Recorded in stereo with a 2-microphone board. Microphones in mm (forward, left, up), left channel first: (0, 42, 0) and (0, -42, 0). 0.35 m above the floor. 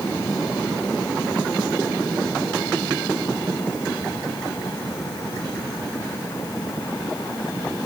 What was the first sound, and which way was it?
Only background noise.